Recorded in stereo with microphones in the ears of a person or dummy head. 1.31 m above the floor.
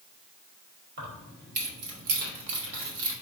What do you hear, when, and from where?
1.0 s keys jangling: 45° right (ahead or behind), 1.8 m; by 3.1 s 70° right (ahead or behind), 1.3 m